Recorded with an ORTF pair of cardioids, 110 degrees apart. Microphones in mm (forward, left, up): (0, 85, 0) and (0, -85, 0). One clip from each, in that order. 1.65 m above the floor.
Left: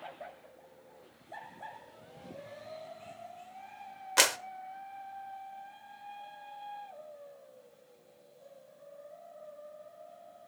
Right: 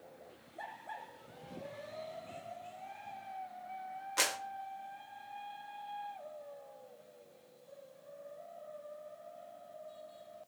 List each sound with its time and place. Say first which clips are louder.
4.2 s a clap: left 7 dB; 45° left, 0.7 m